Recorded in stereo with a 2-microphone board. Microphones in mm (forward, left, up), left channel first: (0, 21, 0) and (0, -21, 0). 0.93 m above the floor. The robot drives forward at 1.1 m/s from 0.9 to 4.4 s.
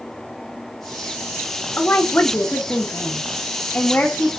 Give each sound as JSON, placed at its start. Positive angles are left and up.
{"t": 1.8, "sound": "a woman speaking", "side_deg": 40, "distance_m": 1.7}